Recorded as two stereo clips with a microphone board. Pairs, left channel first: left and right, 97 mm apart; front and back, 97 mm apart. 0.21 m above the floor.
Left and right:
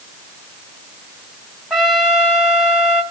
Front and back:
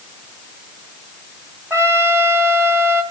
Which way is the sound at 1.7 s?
170° right.